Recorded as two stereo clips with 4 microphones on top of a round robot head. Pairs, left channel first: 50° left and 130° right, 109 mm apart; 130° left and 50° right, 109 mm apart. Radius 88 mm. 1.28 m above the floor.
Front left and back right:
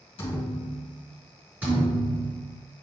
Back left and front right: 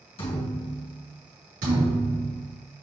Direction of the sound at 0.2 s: 90° left.